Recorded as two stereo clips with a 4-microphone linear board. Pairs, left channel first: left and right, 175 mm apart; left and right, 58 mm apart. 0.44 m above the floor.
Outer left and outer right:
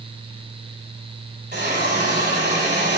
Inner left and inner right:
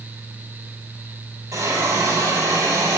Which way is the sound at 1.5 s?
70° right (ahead or behind).